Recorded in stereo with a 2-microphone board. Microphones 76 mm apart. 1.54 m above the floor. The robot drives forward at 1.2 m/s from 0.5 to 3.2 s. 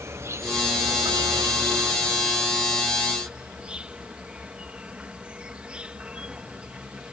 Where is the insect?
35° right (ahead or behind); by 7.1 s 15° right (ahead or behind).